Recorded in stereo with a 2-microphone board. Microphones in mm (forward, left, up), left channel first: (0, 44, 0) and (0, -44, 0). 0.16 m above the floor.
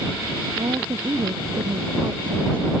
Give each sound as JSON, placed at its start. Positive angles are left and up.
{"t": 0.6, "sound": "a woman speaking", "side_deg": -70}